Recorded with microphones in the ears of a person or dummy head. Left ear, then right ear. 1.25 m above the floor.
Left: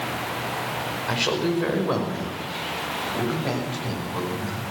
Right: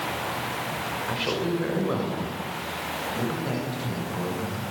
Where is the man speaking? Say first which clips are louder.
Left 4 dB; 20° left (ahead or behind), 5.5 m; by 4.6 s 25° left (ahead or behind), 9.5 m.